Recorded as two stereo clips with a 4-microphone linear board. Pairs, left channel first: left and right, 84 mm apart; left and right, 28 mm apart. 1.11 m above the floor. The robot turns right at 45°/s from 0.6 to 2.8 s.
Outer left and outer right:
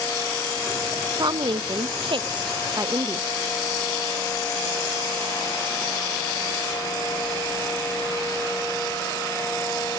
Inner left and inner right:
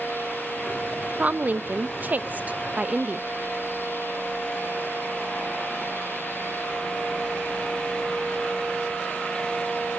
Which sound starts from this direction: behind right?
A woman speaking, at 1.2 s.